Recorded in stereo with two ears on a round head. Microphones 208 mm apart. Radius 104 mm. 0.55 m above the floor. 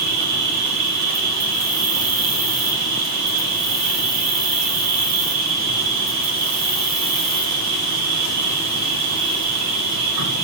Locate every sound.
0.0 s an insect: 85° right, 3.5 m